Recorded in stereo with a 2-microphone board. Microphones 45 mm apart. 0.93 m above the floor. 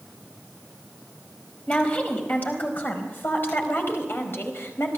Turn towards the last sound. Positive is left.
turn(degrees=70)  # may be behind; listen again after turning